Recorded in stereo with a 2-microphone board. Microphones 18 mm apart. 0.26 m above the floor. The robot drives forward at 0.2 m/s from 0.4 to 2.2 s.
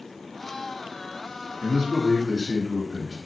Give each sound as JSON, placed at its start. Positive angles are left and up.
{"t": 1.6, "sound": "a man speaking", "side_deg": 20, "distance_m": 2.5}